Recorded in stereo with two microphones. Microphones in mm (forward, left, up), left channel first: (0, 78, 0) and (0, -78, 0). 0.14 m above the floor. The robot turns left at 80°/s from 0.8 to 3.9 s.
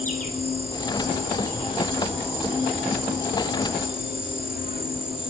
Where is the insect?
120° left, 4 m; by 5.3 s 125° right, 4 m.